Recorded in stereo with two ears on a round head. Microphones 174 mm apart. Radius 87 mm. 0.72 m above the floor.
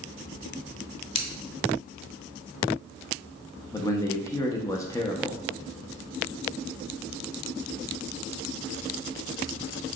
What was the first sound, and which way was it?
Scissors, 25° left (ahead or behind).